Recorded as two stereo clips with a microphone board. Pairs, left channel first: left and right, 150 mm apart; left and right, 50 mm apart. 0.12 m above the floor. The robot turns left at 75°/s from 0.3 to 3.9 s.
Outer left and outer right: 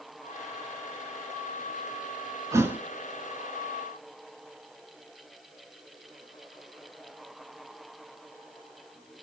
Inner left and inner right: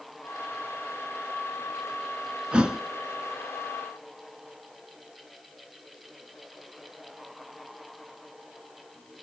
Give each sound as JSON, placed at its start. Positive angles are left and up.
{"t": 2.5, "sound": "a thud", "side_deg": -20, "distance_m": 0.5}